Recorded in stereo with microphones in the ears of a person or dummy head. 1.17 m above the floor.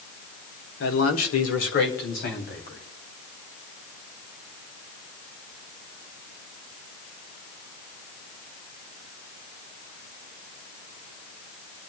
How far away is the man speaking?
About 1.6 m.